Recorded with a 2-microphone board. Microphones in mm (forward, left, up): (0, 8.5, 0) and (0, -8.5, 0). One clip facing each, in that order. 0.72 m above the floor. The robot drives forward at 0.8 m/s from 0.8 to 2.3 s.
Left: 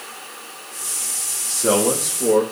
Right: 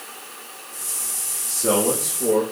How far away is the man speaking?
About 1.4 m.